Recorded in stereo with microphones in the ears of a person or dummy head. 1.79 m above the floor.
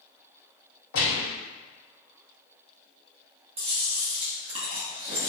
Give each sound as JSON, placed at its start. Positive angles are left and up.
{"t": 0.9, "sound": "a gunshot", "side_deg": 70, "distance_m": 1.2}
{"t": 3.6, "sound": "chewing", "side_deg": -25, "distance_m": 0.7}